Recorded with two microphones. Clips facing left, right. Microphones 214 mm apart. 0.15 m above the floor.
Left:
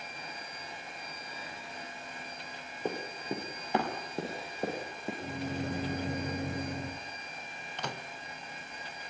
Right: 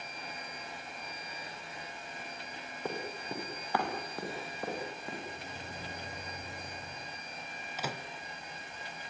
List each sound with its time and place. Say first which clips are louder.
2.9 s running footsteps: left 3 dB; 15° left (ahead or behind), 5.5 m; by 5.1 s 25° left (ahead or behind), 8.5 m
5.2 s a microwave: left 9 dB; 65° left (ahead or behind), 2.5 m
7.8 s a microwave: right 1 dB; 5° right (ahead or behind), 1.3 m